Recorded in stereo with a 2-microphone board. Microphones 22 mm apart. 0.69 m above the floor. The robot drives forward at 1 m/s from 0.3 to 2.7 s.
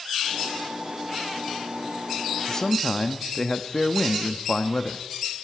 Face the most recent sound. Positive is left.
turn(degrees=25)  # may be behind; listen again after turning